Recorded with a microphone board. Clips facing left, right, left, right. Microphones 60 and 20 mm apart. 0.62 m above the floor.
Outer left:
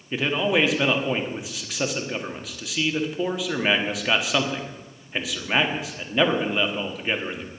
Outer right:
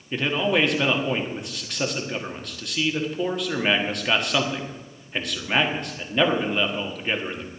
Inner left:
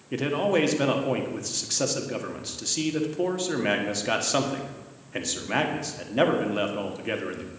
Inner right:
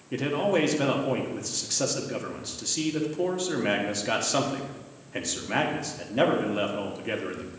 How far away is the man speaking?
About 1.3 m.